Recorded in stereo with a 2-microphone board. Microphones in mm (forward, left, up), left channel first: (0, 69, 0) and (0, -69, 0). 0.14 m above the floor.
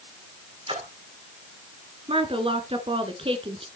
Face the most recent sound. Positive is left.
turn(degrees=-45)  # may be behind; listen again after turning